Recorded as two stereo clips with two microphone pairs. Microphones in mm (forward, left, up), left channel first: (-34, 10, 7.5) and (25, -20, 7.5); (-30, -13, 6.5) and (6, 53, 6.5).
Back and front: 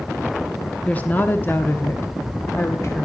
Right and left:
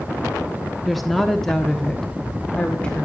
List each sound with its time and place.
0.8 s a woman speaking: 145° left, 1.1 m; by 3.1 s 170° left, 1.8 m